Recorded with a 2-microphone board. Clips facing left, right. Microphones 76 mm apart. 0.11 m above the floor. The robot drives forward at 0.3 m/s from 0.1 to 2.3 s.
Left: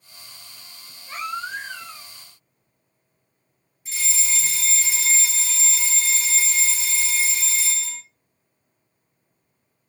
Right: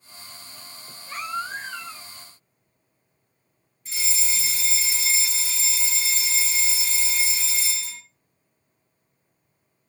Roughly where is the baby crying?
Centre.